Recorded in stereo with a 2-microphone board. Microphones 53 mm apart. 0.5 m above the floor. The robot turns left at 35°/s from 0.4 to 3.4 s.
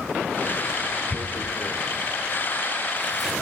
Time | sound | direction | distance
1.1 | tearing paper | 70° left (ahead or behind) | 1.2 m